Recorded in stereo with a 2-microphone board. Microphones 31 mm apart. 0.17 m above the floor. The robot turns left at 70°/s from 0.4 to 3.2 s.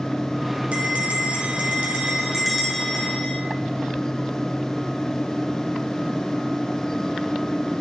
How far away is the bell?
About 1.2 m.